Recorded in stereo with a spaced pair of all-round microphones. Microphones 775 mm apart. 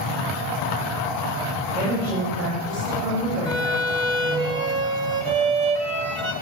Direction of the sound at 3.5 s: 65° right (ahead or behind).